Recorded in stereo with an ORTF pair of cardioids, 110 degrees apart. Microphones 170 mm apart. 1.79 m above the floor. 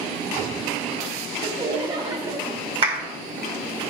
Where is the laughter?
25° right, 0.8 m.